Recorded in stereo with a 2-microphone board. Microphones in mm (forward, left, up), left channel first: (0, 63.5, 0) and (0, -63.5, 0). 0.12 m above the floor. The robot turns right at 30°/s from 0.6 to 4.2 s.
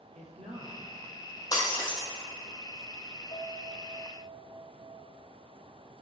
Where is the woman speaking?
65° right (ahead or behind), 3 m.